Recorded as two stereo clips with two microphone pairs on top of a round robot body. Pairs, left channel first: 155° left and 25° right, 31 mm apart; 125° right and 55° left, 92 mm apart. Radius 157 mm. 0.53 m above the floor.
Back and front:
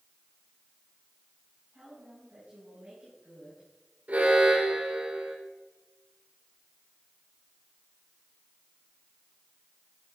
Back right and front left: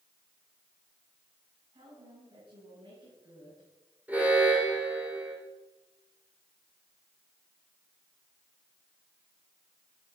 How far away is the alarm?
About 4 m.